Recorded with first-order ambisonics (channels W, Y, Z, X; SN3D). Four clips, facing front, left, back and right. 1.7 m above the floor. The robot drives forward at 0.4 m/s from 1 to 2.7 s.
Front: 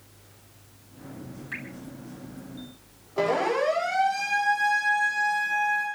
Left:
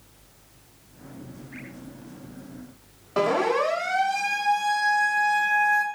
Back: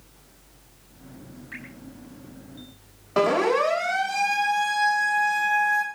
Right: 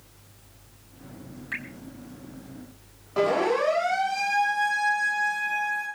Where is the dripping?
75° right, 4 m.